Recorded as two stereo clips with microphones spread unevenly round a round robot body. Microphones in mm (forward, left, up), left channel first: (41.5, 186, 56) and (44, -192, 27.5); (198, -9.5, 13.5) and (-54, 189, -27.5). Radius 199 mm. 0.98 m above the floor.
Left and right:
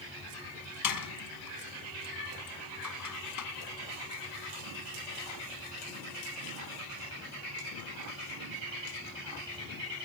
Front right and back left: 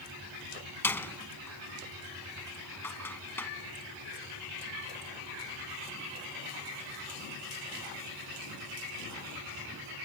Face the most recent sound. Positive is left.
turn(degrees=45)